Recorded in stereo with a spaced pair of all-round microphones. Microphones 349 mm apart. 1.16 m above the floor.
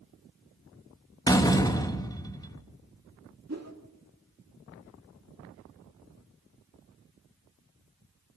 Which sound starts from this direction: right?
A whoosh, at 3.5 s.